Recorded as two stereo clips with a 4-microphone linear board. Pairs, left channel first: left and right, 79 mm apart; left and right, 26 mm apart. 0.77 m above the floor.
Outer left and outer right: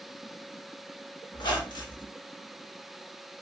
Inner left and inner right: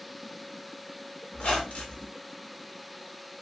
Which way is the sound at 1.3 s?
70° left (ahead or behind).